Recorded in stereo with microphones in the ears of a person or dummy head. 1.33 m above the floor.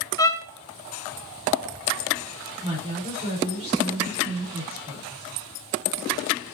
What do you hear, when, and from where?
0.2 s a violin: 15° left (ahead or behind), 0.6 m
2.6 s a woman speaking: 30° right (ahead or behind), 4.5 m